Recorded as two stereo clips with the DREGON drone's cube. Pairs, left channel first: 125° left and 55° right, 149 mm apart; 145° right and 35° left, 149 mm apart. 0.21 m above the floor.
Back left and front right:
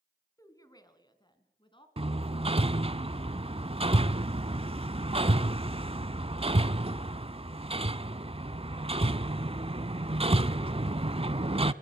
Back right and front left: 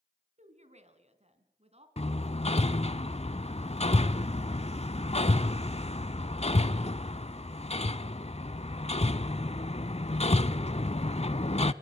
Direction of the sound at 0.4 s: 60° left.